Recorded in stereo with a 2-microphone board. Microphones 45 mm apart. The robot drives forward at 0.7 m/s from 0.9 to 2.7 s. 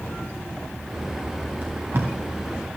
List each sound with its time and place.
1.6 s tape being pulled: 45° right (ahead or behind), 3 m; by 2.1 s 50° right (ahead or behind), 3 m